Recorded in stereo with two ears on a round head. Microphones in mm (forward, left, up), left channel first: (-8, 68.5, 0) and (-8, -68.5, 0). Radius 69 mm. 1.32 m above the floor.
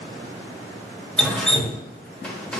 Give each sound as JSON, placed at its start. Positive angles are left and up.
{"t": 1.2, "sound": "dripping", "side_deg": 5, "distance_m": 0.7}